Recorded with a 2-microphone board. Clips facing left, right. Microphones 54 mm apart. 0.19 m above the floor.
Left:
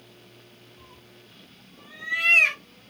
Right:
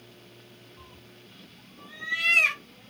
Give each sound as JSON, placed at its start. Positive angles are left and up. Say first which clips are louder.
{"t": 0.8, "sound": "a cat meowing", "louder": "even", "side_deg": -30, "distance_m": 1.2}